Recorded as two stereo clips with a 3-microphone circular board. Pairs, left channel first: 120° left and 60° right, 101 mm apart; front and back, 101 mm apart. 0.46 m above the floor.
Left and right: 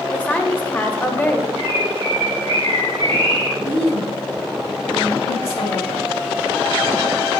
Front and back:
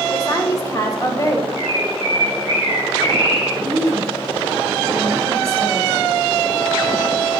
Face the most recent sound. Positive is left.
turn(degrees=125)